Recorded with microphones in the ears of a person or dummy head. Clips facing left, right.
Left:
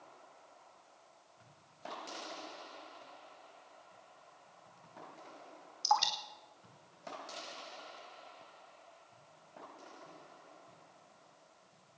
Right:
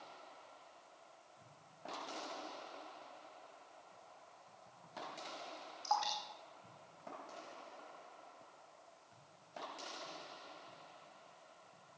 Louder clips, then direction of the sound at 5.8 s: Left 5 dB; 55° left (ahead or behind).